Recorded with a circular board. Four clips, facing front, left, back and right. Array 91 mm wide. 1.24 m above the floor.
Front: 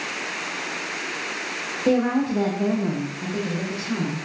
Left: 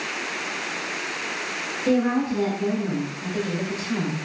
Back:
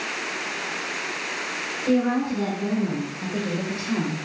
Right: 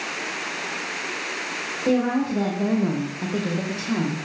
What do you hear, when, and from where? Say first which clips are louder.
1.9 s a woman speaking: even, front 1 dB; 15° right, 0.7 m; by 4.2 s 115° right, 1.0 m